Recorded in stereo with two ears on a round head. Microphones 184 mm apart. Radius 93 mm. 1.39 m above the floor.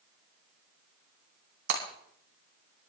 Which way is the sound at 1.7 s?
65° right (ahead or behind).